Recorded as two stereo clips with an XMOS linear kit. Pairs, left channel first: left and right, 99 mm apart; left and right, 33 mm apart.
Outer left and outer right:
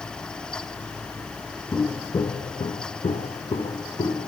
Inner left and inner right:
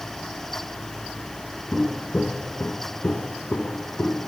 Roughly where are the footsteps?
Centre.